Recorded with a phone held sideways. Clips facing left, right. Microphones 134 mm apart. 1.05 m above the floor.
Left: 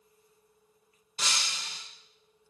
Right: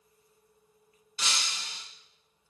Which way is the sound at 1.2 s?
35° left (ahead or behind).